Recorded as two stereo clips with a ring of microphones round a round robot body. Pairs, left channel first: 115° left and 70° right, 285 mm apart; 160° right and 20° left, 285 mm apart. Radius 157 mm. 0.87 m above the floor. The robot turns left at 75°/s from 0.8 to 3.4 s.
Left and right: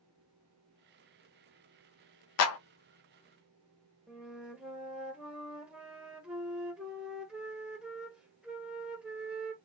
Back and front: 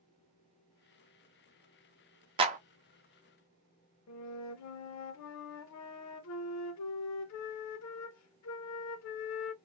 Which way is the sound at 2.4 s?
95° left.